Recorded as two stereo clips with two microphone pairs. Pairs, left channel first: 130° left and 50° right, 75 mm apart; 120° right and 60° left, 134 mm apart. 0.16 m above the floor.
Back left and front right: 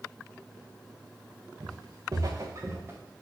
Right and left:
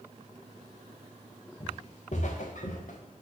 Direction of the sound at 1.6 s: 75° right.